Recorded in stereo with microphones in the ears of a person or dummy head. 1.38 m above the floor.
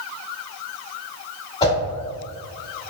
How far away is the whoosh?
About 1.8 m.